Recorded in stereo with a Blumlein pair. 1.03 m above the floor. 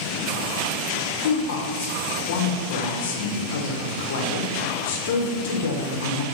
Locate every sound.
1.2 s a woman speaking: 55° left, 0.6 m